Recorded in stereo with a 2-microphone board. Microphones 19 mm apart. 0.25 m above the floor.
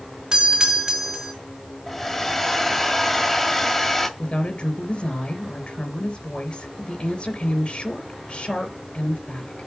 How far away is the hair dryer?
About 1.7 m.